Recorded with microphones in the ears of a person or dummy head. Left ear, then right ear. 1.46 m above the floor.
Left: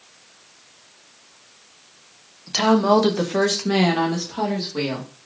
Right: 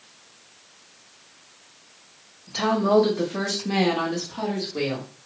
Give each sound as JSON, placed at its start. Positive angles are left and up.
{"t": 2.5, "sound": "a woman speaking", "side_deg": 70, "distance_m": 0.8}